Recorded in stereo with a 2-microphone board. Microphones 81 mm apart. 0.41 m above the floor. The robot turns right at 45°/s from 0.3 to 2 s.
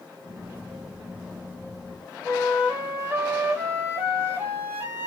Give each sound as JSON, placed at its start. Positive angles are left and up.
{"t": 2.2, "sound": "a flute", "side_deg": -20, "distance_m": 3.5}